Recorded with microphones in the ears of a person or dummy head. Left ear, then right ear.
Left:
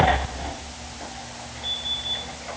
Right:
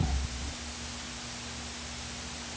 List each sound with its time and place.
Only background noise.